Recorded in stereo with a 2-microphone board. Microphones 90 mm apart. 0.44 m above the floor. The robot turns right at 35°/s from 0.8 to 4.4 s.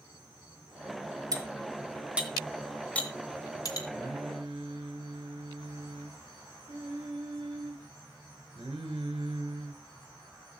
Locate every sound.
1.3 s cutlery clinking: 40° right (ahead or behind), 2.5 m; by 3.8 s 45° left (ahead or behind), 2.5 m
3.9 s singing: 85° right, 3 m; by 9.8 s 70° right (ahead or behind), 3 m